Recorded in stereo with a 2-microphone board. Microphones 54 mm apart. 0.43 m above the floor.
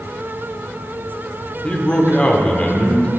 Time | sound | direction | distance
1.6 | a man speaking | 20° left (ahead or behind) | 1.1 m